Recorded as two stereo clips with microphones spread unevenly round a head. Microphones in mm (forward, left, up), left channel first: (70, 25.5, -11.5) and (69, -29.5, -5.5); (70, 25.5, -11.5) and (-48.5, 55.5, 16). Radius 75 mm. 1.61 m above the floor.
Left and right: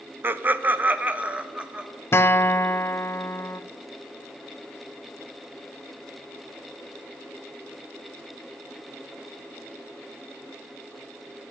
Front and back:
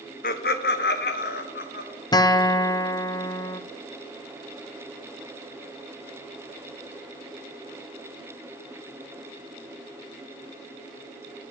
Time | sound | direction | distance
0.2 | laughter | 50° right | 0.6 m
2.1 | a guitar | 50° left | 0.6 m